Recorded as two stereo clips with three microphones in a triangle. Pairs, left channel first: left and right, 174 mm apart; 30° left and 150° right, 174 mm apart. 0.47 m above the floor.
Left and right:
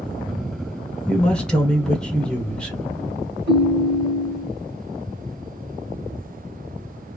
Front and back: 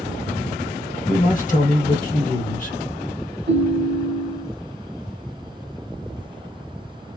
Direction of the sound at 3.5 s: 120° right.